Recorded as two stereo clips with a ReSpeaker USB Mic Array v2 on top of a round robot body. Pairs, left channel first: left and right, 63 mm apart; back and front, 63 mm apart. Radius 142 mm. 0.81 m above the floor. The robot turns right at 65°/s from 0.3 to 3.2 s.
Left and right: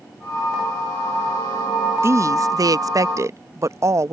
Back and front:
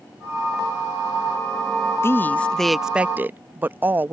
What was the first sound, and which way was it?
A woman speaking, 130° right.